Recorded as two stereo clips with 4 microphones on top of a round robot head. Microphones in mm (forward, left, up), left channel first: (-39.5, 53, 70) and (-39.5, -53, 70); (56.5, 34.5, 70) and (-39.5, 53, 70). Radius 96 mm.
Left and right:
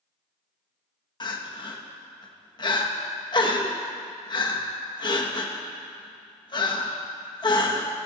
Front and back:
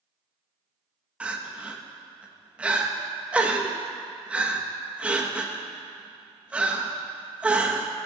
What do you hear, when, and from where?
1.2 s crying: 95° left, 1.4 m